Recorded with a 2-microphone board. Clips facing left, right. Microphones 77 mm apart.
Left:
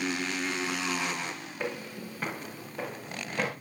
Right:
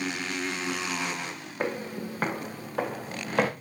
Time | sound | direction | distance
1.6 | footsteps | 45° right (ahead or behind) | 3 m